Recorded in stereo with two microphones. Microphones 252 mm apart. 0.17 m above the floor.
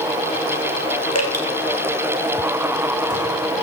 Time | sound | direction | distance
1.1 | dripping | 75° left (ahead or behind) | 2.5 m